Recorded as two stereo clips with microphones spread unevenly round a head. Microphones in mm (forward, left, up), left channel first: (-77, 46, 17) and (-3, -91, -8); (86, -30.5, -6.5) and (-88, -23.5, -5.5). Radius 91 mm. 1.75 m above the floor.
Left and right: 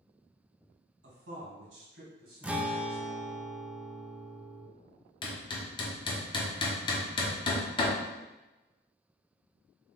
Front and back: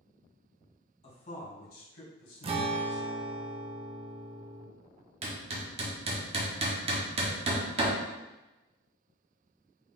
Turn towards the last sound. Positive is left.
turn(degrees=140)